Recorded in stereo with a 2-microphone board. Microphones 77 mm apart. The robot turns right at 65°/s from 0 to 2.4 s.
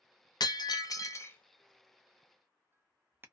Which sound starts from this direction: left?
Breaking glass, at 0.4 s.